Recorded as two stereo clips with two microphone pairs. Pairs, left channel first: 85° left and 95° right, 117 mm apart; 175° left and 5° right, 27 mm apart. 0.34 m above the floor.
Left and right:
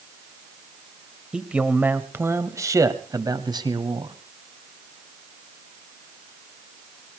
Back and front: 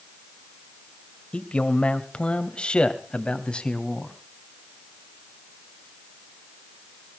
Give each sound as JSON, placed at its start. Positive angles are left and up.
{"t": 1.3, "sound": "a man speaking", "azimuth_deg": -175, "distance_m": 1.7}